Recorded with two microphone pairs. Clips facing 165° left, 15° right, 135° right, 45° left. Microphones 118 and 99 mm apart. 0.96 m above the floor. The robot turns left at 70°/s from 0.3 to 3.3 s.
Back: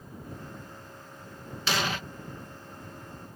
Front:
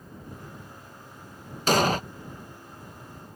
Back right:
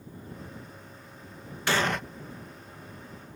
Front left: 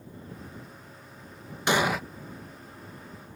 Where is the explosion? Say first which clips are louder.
Front 8 dB, front left 2 dB; 15° right; by 2.0 s 40° right.